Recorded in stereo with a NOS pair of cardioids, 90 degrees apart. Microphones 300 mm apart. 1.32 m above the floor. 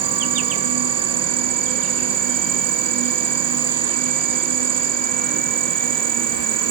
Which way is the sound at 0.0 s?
55° right.